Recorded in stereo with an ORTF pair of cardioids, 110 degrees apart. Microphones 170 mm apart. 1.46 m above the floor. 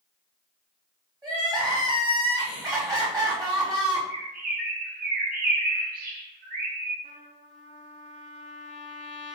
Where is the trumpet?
50° right, 1.0 m.